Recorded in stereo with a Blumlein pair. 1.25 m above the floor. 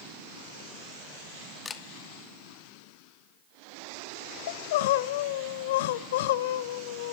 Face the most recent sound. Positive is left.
turn(degrees=55)